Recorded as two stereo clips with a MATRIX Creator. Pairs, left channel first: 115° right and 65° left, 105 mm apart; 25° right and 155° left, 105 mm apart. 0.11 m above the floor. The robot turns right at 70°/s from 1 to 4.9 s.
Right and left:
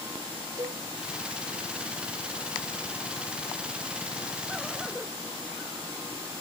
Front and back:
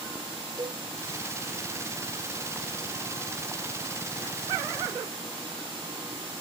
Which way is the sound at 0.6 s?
115° left.